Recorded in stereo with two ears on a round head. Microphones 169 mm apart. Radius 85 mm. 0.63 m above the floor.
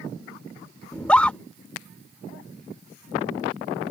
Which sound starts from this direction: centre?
A scream, at 0.9 s.